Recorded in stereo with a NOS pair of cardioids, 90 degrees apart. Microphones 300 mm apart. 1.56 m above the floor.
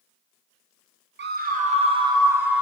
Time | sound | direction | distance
1.2 | a scream | 35° right | 1.4 m